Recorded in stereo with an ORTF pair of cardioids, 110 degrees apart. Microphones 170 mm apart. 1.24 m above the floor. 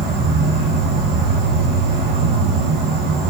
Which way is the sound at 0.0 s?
65° right.